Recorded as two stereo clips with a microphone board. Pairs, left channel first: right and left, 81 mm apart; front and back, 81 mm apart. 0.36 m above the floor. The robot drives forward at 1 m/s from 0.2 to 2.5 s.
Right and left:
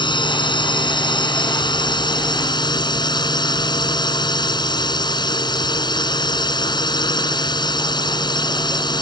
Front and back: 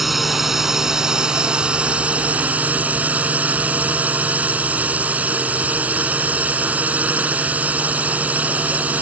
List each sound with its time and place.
0.0 s a drone: 95° right; by 9.0 s 110° right